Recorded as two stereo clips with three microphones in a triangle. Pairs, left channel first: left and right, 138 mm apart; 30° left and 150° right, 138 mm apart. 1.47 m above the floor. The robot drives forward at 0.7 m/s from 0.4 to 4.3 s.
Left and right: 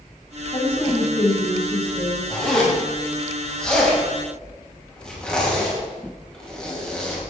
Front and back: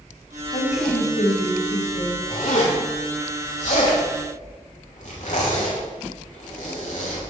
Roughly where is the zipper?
Ahead.